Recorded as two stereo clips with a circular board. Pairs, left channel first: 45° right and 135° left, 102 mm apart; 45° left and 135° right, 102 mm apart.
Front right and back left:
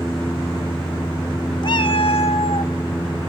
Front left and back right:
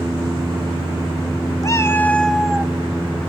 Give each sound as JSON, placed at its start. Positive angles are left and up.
{"t": 1.6, "sound": "a cat meowing", "azimuth_deg": -10, "distance_m": 0.8}